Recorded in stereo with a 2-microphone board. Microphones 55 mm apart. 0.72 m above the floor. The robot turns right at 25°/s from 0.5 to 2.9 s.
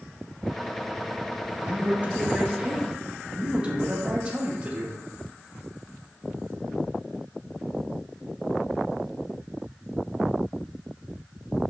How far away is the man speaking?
About 0.8 m.